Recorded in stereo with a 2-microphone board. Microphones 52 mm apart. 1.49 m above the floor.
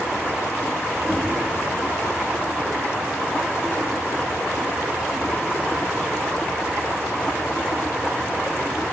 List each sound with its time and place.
1.0 s knocking: 35° right (ahead or behind), 4.5 m